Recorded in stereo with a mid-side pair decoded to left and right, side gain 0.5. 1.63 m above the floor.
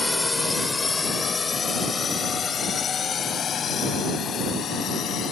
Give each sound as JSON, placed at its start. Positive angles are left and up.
{"t": 0.0, "sound": "a drone", "azimuth_deg": 15}